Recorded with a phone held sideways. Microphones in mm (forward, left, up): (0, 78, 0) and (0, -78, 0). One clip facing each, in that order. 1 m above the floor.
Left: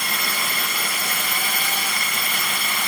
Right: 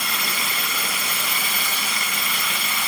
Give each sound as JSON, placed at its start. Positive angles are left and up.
{"t": 0.0, "sound": "a drone", "side_deg": 55}